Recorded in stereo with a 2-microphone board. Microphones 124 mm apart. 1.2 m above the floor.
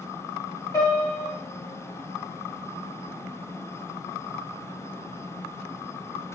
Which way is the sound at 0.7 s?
25° left (ahead or behind).